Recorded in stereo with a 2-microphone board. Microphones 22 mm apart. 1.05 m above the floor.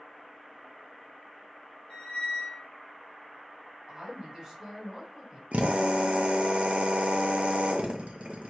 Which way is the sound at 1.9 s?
60° left (ahead or behind).